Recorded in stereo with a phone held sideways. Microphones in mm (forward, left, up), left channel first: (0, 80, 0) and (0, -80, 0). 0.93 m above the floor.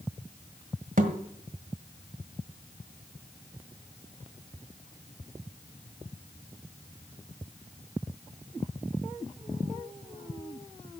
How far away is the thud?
About 1.5 m.